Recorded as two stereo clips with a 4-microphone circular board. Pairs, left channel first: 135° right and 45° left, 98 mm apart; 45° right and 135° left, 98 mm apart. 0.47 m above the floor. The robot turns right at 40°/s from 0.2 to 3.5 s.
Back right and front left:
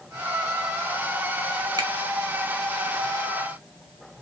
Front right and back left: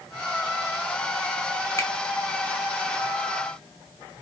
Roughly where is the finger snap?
Ahead.